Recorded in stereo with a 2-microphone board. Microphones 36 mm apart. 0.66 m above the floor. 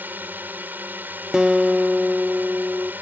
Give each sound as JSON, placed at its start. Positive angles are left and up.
{"t": 0.0, "sound": "a drone", "side_deg": -60}
{"t": 1.3, "sound": "a guitar", "side_deg": -15}